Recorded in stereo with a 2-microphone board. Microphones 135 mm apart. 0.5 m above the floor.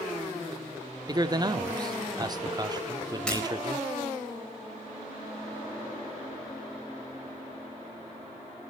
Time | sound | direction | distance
1.1 | a man speaking | 30° right (ahead or behind) | 0.7 m
3.3 | breaking glass | 5° left (ahead or behind) | 4.5 m